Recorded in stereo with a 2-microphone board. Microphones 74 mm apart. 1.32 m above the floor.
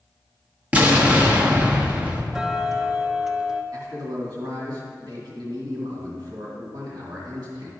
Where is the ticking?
5° right (ahead or behind), 0.6 m.